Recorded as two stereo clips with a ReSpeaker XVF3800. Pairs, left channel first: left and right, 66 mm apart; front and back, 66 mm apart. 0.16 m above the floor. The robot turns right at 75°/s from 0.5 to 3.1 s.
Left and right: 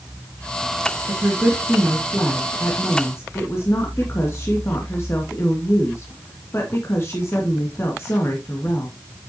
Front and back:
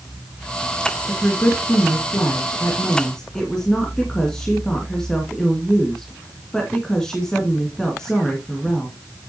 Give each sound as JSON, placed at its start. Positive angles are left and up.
{"t": 1.1, "sound": "a woman speaking", "azimuth_deg": -75, "distance_m": 2.0}